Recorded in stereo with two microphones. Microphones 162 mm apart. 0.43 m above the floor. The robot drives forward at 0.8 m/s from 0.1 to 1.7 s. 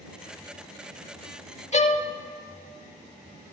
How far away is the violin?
About 0.5 m.